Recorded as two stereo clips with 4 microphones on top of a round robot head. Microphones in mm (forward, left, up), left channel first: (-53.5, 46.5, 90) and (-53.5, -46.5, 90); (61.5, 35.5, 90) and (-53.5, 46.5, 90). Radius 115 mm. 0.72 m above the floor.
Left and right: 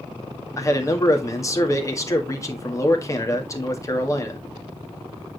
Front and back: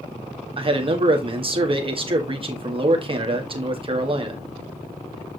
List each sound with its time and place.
0.6 s a man speaking: 140° left, 1.8 m